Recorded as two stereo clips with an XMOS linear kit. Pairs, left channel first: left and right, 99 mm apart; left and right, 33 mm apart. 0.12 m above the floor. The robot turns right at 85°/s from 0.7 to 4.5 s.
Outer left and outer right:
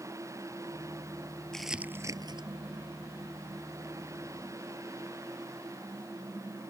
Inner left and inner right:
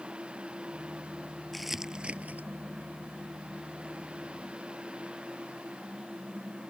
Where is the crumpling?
5° left (ahead or behind); by 2.5 s 55° right (ahead or behind).